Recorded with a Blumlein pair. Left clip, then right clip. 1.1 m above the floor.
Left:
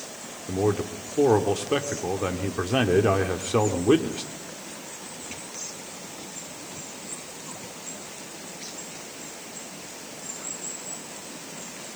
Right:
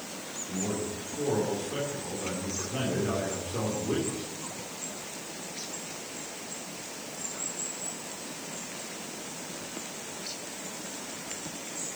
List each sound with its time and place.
0.5 s a man speaking: 55° left, 2.5 m